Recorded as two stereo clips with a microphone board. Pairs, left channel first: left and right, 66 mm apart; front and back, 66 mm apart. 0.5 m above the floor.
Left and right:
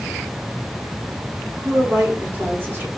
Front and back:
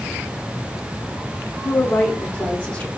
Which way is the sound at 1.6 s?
60° right.